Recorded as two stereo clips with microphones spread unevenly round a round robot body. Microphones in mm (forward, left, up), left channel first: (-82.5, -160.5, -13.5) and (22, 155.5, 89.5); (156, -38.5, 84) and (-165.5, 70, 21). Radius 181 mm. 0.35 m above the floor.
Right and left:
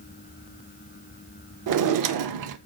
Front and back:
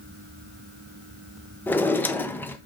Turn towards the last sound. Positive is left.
turn(degrees=80)